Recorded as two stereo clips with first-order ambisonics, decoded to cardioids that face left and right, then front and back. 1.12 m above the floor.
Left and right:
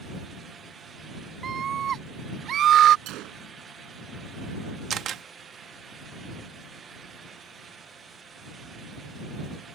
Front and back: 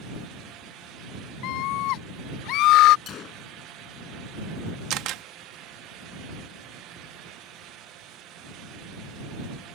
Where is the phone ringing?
I don't hear a phone ringing.